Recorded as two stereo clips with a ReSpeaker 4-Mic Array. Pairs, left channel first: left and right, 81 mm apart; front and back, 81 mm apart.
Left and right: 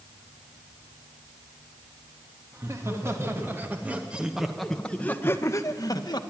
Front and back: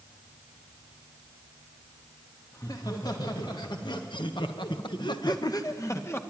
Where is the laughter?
40° right, 2.5 m; by 6.2 s 60° left, 1.5 m.